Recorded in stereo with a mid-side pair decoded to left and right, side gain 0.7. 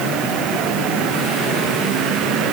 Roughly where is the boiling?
No boiling in this recording.